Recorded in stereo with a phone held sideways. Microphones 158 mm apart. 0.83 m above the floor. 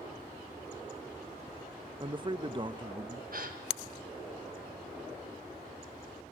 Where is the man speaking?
30° right (ahead or behind), 0.8 m.